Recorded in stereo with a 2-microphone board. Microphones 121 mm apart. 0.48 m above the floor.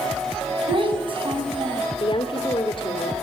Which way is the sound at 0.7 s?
45° right (ahead or behind).